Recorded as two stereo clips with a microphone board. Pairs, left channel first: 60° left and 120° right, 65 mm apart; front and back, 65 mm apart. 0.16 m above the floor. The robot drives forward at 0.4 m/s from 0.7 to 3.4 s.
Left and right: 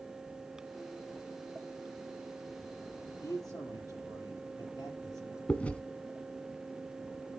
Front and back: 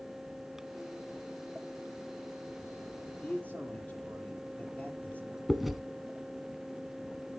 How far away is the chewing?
About 1.3 m.